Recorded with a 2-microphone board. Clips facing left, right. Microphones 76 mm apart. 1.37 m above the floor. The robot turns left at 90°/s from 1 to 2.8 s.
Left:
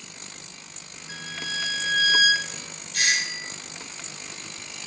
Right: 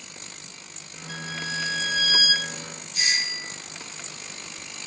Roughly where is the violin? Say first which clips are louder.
Right 2 dB; behind.